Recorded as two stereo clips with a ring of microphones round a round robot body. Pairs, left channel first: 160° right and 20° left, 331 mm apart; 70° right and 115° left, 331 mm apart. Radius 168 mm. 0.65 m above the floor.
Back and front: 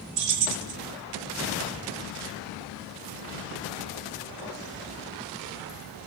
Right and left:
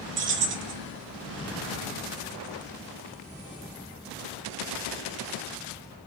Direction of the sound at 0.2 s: 55° left.